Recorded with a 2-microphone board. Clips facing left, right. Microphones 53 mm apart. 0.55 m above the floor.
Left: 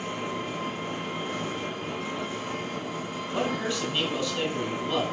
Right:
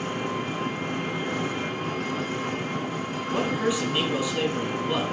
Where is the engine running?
65° right (ahead or behind), 2.5 m.